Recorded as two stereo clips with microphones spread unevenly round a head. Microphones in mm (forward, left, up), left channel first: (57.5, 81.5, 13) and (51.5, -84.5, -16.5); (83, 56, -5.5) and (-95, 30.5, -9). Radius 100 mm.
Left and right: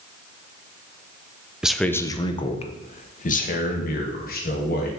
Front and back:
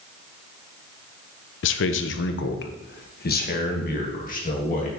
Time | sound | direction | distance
1.6 | a man speaking | straight ahead | 0.6 m